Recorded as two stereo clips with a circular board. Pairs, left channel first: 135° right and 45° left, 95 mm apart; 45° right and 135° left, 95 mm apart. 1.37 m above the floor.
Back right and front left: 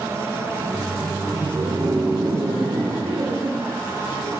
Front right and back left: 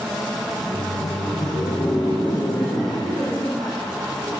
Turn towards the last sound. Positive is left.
turn(degrees=15)